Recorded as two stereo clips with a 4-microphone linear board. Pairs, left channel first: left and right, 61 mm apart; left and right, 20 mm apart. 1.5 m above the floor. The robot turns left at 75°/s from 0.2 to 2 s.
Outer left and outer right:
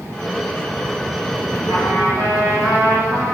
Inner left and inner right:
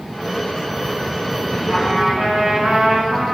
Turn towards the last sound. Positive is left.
turn(degrees=-80)